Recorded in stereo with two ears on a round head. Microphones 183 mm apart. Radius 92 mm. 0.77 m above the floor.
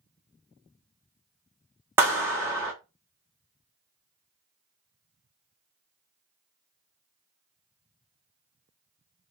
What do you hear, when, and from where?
2.0 s a clap: 10° right (ahead or behind), 0.9 m